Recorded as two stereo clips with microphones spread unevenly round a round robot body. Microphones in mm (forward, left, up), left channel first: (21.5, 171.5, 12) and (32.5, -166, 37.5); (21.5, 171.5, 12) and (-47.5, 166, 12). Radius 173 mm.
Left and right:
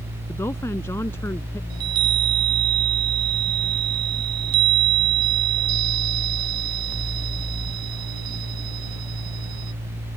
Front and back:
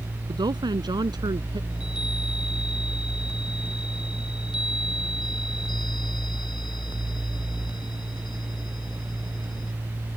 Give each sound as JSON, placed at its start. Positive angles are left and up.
{"t": 0.3, "sound": "a woman speaking", "azimuth_deg": 175}
{"t": 1.7, "sound": "a chime", "azimuth_deg": -65}